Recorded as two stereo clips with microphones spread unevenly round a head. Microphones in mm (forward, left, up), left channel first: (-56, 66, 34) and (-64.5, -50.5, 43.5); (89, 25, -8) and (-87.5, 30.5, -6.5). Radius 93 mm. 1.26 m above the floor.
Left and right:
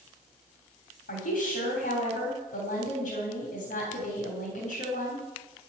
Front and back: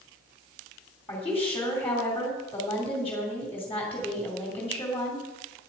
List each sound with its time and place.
1.1 s a woman speaking: 80° left, 3 m